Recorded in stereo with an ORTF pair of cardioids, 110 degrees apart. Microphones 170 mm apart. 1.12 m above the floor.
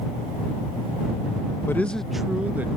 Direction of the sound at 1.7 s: 15° left.